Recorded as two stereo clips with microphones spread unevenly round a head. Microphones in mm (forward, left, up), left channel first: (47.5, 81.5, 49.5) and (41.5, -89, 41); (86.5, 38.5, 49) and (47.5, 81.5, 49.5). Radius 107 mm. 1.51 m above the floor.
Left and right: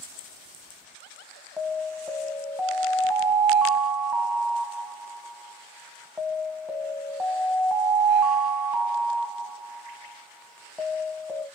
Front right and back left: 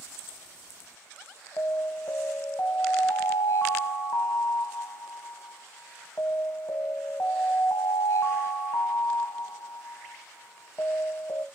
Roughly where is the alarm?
Ahead.